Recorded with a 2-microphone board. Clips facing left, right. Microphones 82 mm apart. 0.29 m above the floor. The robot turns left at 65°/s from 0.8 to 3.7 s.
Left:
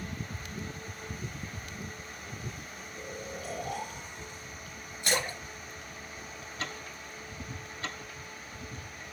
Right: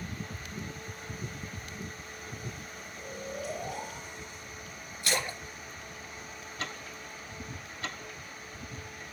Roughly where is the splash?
Left.